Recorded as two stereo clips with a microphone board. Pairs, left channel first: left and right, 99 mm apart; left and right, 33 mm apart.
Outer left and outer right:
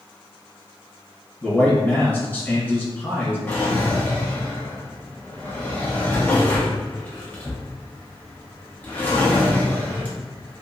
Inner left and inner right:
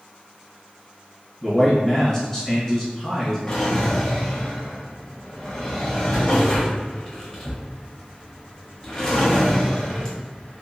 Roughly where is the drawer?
Centre.